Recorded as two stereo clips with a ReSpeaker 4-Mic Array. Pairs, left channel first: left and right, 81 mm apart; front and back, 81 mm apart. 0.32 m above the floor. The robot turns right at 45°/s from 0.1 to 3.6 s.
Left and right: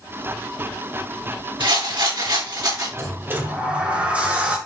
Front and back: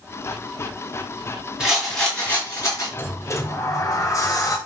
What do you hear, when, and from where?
1.6 s a rattle: 100° right, 4.5 m; by 2.9 s 45° right, 4.5 m
3.0 s a sliding door: 50° right, 1.9 m; by 4.6 s 20° right, 1.9 m